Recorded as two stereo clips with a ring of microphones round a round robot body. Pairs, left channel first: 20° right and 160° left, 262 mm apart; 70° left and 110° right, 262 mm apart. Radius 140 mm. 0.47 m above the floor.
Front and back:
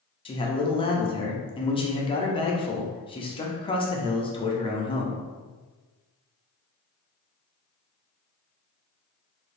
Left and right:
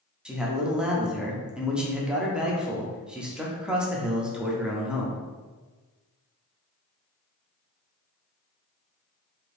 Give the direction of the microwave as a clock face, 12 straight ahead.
I don't hear a microwave.